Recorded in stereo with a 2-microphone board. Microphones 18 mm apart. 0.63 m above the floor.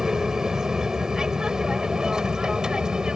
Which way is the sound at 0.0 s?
30° right (ahead or behind).